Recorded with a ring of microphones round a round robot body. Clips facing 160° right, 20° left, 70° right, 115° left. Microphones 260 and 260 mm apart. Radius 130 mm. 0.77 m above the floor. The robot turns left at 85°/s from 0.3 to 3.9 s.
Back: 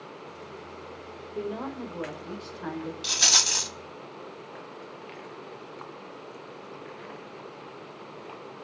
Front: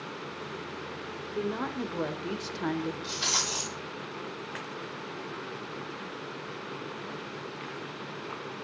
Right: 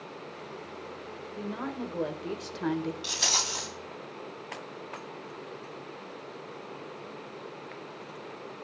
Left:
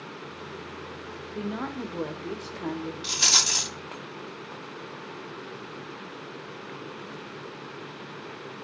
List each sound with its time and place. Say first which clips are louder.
1.4 s a woman speaking: front 1 dB, left 3 dB; 105° left, 3 m; by 2.9 s 30° right, 3 m
3.0 s a rattle: front 1 dB, left 2 dB; 160° right, 2 m; by 3.7 s 140° left, 2 m